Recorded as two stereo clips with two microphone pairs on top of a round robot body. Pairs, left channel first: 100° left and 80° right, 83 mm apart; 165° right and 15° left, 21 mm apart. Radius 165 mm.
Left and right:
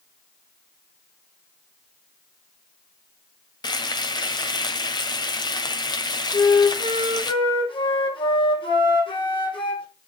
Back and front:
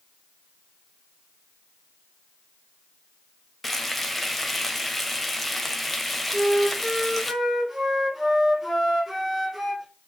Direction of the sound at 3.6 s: 110° left.